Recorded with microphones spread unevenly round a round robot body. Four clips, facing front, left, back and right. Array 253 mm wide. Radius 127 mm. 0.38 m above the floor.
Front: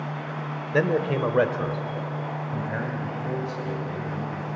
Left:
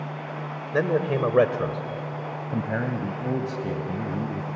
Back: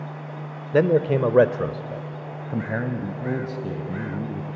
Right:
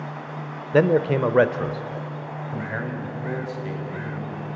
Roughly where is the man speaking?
Behind right.